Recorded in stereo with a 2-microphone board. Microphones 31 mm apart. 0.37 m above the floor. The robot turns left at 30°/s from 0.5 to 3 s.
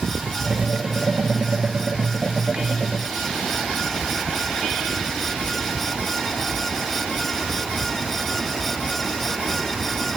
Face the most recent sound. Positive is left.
No sound to turn to.